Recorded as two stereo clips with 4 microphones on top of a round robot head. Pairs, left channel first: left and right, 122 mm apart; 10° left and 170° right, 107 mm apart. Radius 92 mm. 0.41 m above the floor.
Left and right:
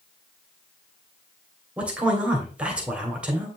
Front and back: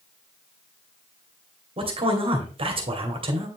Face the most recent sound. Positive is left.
turn(degrees=-170)